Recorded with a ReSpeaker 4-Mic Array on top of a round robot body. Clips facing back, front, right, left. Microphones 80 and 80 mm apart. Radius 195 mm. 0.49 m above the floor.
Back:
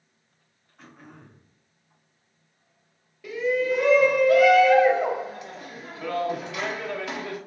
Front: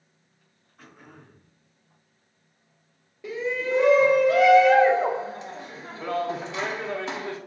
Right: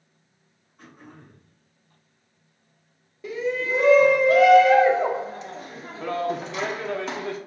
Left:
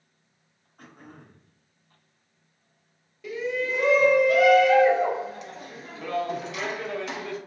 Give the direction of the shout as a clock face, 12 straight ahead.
2 o'clock.